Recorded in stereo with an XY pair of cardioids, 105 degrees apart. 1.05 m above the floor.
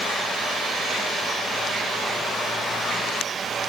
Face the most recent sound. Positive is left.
No sound to turn to.